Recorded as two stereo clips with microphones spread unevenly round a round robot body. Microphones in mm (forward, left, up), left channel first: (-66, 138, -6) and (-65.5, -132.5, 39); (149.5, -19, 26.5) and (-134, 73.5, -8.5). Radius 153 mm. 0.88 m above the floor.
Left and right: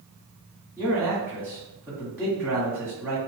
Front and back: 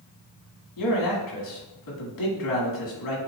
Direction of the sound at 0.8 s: 5° right.